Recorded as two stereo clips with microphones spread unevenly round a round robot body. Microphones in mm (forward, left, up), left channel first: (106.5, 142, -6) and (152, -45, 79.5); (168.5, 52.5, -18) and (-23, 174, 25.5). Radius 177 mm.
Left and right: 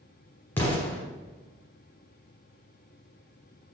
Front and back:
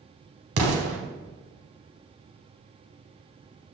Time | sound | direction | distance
0.6 | an explosion | 170° right | 0.9 m